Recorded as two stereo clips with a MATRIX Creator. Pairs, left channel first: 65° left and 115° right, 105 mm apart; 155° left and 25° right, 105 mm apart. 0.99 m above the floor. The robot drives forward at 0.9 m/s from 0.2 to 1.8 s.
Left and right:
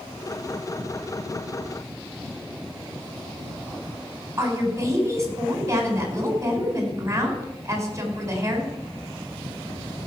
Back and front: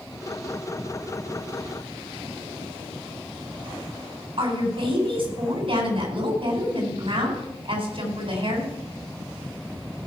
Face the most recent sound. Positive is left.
turn(degrees=-50)